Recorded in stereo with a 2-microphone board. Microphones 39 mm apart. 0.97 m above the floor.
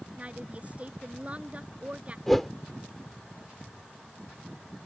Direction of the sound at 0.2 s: 35° right (ahead or behind).